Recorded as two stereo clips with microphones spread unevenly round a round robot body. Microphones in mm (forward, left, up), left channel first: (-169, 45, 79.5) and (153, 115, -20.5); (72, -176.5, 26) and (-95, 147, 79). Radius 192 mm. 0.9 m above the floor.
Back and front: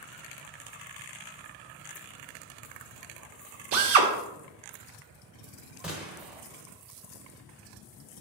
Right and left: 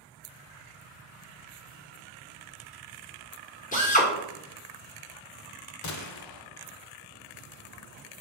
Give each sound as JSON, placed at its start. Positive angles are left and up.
{"t": 3.7, "sound": "a drill", "azimuth_deg": 10, "distance_m": 1.2}
{"t": 5.8, "sound": "a gunshot", "azimuth_deg": -95, "distance_m": 0.7}